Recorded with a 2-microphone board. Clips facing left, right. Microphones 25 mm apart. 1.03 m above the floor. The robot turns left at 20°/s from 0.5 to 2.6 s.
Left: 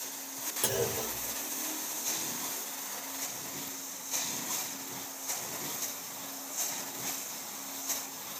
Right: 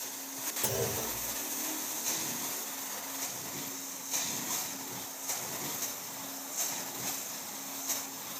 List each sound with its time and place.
0.6 s a clunk: 65° left (ahead or behind), 1.8 m; by 1.4 s 75° left (ahead or behind), 1.8 m